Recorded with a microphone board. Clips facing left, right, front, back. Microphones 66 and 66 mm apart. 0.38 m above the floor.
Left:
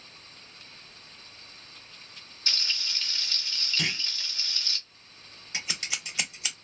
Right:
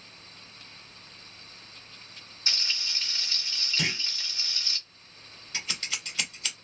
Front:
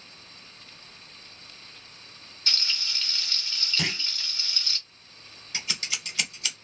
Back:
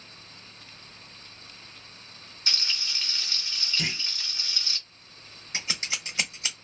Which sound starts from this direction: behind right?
Frying, at 2.5 s.